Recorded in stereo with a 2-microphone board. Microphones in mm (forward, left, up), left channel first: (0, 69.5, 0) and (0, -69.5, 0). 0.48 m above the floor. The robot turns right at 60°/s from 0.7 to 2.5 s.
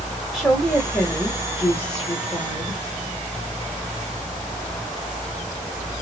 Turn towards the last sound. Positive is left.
turn(degrees=110)